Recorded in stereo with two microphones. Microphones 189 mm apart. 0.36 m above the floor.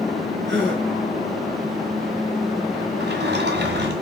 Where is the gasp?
70° right (ahead or behind), 3.5 m.